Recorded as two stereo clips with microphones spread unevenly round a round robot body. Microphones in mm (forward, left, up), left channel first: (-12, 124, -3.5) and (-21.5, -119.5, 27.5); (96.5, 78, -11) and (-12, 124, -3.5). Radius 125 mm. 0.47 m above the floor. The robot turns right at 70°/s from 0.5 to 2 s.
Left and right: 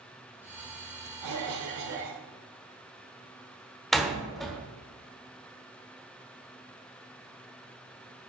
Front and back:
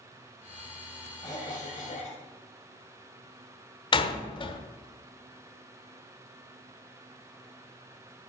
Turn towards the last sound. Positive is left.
turn(degrees=5)